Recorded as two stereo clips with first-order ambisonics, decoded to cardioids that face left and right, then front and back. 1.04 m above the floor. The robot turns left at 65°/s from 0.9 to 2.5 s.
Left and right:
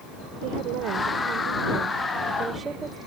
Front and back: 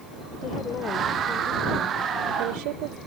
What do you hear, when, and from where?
0.4 s a woman speaking: 60° right; by 3.0 s 165° right